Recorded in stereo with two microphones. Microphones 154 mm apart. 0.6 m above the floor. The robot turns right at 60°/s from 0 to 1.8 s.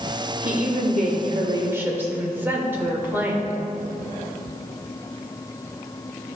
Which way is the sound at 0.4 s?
95° right.